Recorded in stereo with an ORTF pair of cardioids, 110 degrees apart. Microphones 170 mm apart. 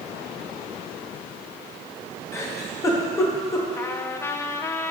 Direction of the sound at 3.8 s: 15° left.